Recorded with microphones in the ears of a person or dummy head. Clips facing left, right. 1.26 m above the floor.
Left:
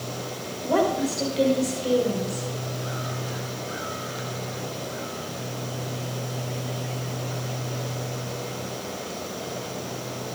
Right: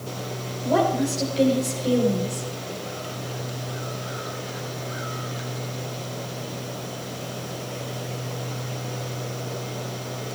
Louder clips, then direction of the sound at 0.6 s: Right 1 dB; centre (ahead or behind).